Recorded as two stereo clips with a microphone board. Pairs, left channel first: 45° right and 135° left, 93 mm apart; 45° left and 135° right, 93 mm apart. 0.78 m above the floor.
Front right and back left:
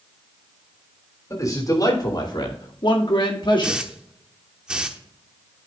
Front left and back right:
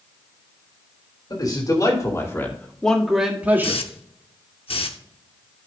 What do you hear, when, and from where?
1.3 s a man speaking: 5° left, 3 m; by 3.8 s 75° right, 2 m
3.6 s a hiss: 55° left, 0.8 m